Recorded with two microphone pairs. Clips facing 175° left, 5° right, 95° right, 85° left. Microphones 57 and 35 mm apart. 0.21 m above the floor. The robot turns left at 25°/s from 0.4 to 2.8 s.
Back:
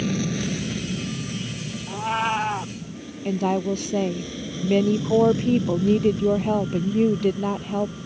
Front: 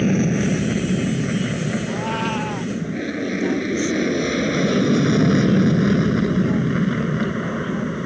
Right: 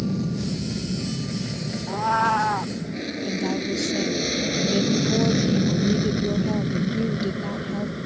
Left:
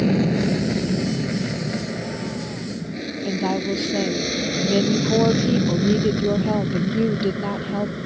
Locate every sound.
0.0 s an aircraft: 50° left; by 8.1 s 5° left
1.9 s a cat meowing: 100° right; by 2.7 s 120° right
3.2 s a woman speaking: 145° left